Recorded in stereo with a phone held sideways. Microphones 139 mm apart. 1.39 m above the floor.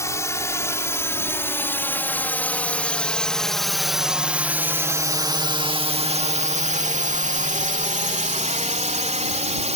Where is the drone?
20° left (ahead or behind); by 9.8 s 50° right (ahead or behind).